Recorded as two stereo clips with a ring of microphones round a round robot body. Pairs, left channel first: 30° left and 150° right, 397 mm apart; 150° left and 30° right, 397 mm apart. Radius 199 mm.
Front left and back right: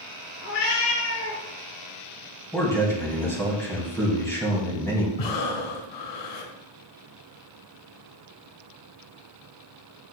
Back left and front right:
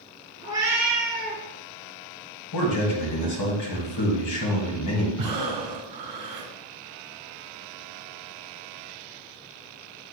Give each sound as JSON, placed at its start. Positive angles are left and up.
{"t": 0.4, "sound": "a cat meowing", "azimuth_deg": 50, "distance_m": 1.9}
{"t": 2.5, "sound": "a man speaking", "azimuth_deg": 115, "distance_m": 2.5}
{"t": 5.2, "sound": "breathing", "azimuth_deg": 10, "distance_m": 1.5}